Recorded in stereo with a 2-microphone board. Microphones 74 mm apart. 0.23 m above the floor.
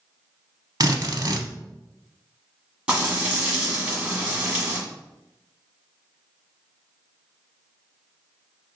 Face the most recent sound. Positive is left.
turn(degrees=-15)  # may be behind; listen again after turning